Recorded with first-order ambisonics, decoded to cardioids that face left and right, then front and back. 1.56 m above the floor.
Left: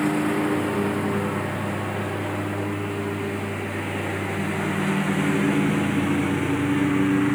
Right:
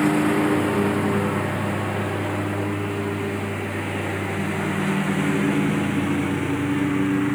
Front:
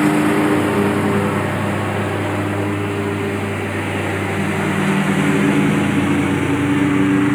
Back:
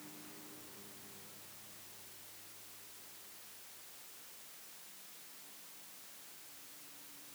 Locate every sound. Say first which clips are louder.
0.0 s a lawn mower: right 3 dB, front 39 dB; 10° right; by 7.4 s 5° left